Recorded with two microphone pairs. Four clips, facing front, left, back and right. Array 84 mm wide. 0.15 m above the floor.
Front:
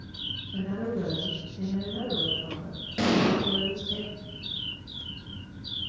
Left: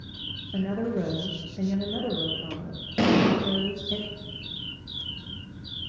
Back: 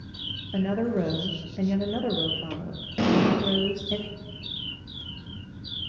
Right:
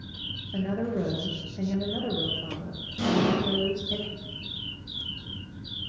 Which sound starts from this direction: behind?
A woman speaking, at 0.5 s.